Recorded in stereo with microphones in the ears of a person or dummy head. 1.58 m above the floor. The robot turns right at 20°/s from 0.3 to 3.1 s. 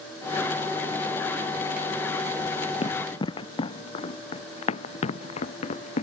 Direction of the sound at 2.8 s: 35° left (ahead or behind).